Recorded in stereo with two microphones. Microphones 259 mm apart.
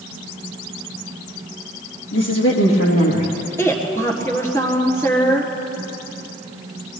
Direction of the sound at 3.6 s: 10° left (ahead or behind).